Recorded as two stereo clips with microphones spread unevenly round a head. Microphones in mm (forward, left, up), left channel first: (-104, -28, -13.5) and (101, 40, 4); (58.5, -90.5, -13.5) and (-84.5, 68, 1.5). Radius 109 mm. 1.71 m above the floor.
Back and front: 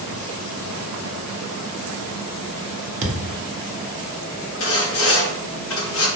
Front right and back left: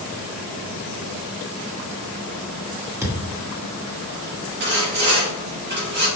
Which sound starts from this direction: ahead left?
A thud, at 3.0 s.